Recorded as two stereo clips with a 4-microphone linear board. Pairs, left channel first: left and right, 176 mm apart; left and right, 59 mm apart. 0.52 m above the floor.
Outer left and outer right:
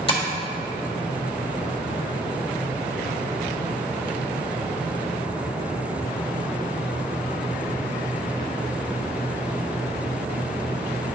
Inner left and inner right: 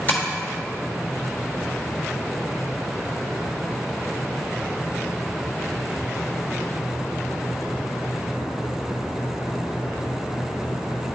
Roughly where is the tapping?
Left.